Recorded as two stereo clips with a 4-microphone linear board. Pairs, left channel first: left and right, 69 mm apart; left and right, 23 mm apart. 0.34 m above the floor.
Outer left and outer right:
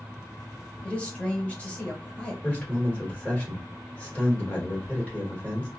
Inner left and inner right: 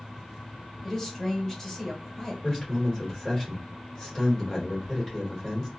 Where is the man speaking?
20° left (ahead or behind), 1.6 m.